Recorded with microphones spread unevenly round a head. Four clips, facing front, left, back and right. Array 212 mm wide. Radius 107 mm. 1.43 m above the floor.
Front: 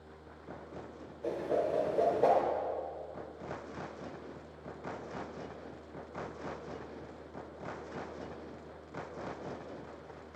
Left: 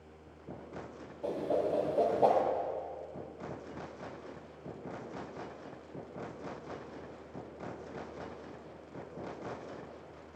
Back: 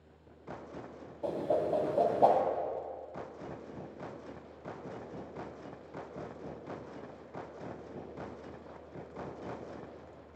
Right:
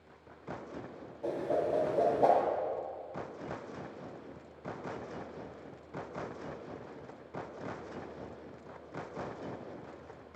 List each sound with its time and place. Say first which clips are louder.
1.2 s a whoosh: even, back 1 dB; 160° left, 1.9 m